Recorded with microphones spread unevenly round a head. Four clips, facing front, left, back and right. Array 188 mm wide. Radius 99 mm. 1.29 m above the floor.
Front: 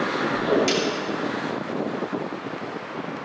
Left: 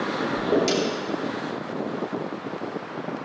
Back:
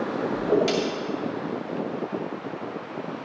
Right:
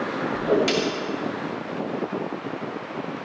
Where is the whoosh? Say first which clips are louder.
Right 1 dB, even; 60° right, 5 m.